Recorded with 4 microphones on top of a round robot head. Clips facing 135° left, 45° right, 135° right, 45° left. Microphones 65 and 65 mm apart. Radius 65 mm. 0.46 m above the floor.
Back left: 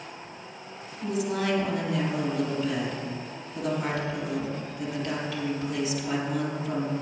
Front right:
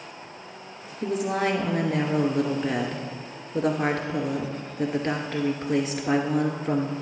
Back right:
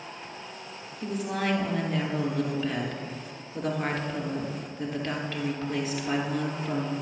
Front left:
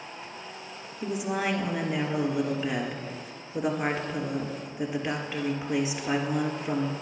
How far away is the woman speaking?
About 1.7 m.